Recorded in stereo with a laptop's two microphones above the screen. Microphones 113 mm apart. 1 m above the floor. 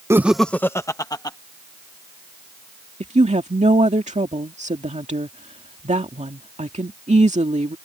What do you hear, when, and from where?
0.1 s laughter: 20° right (ahead or behind); by 1.4 s 35° left (ahead or behind)
3.0 s a woman speaking: 75° right (ahead or behind)